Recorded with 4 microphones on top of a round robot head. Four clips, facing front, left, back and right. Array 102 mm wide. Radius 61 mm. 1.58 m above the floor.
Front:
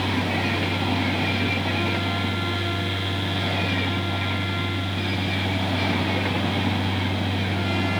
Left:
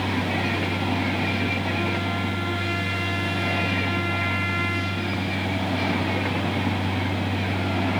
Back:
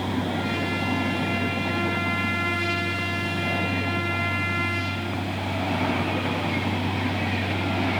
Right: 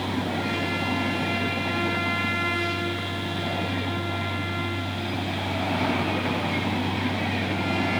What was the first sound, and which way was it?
Only background noise.